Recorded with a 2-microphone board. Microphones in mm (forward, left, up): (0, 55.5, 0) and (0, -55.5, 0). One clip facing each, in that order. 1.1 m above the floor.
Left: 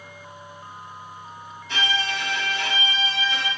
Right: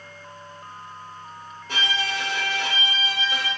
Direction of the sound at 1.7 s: 45° right (ahead or behind).